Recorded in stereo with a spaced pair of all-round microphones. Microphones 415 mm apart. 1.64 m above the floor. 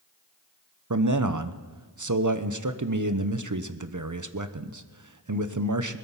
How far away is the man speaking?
About 0.9 m.